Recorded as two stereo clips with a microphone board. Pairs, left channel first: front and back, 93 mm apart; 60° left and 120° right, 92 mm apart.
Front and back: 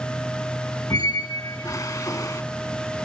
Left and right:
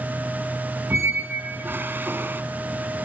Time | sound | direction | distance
0.9 | a squeak | 50° right | 0.9 m